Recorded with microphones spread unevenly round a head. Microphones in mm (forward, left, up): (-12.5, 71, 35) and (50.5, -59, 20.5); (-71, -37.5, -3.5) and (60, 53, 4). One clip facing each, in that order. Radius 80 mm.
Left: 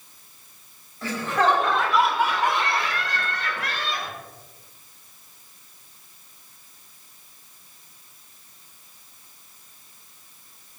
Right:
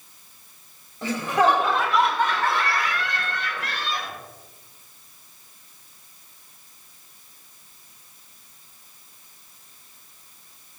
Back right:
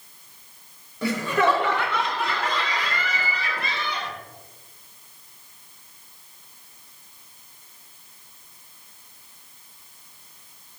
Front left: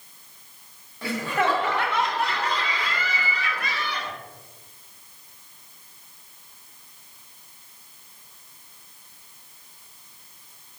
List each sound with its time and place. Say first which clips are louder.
1.0 s laughter: right 2 dB, back right 3 dB; 135° right, 4 m; by 4.1 s 140° left, 3.5 m